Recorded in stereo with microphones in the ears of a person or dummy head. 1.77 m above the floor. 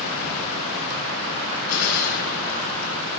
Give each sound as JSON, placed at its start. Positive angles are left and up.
{"t": 1.7, "sound": "a gunshot", "side_deg": 80, "distance_m": 9.5}